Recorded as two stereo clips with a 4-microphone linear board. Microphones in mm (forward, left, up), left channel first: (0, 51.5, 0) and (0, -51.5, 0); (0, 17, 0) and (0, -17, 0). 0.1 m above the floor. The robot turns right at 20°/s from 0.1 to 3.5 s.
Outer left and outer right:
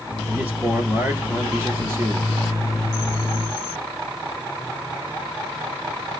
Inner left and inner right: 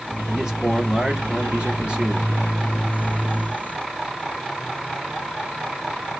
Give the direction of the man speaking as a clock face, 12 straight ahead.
5 o'clock.